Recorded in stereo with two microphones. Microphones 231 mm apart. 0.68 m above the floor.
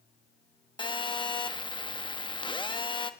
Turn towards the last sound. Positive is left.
turn(degrees=20)  # may be behind; listen again after turning